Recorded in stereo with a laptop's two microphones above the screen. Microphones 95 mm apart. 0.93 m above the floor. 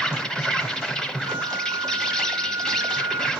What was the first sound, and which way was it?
An insect, 5° left (ahead or behind).